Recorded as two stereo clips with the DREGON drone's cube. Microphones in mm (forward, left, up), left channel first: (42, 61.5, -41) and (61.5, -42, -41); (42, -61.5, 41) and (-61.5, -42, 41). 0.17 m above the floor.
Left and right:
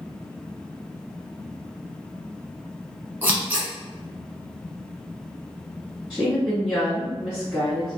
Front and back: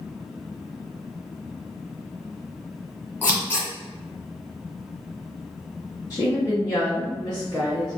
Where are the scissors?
40° right, 1.1 m.